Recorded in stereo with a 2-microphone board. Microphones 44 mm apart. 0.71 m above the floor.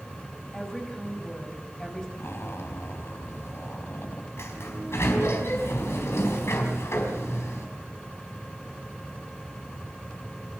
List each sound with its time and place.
0.5 s a woman speaking: 10° left (ahead or behind), 5.5 m
2.2 s a zipper: 75° left (ahead or behind), 2 m
4.4 s a sliding door: 80° left, 4 m